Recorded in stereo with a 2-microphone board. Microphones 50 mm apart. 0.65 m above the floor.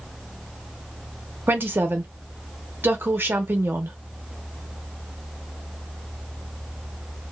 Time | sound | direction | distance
1.5 | a woman speaking | 45° right (ahead or behind) | 0.7 m